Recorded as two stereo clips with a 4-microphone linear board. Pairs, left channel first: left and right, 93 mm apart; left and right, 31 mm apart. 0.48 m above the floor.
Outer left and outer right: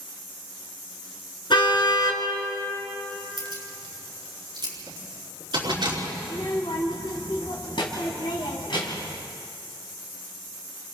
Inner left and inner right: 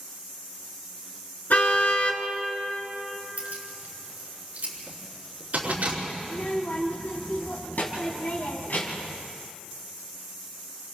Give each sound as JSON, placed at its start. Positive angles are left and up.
{"t": 1.5, "sound": "a car horn", "side_deg": 60, "distance_m": 3.0}
{"t": 3.4, "sound": "keys jangling", "side_deg": -55, "distance_m": 5.0}
{"t": 6.2, "sound": "a child speaking", "side_deg": 65, "distance_m": 2.5}